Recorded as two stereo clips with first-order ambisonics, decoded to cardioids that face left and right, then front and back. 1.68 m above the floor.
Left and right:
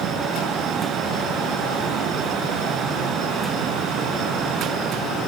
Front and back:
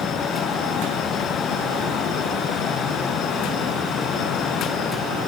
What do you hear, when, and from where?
Only background noise.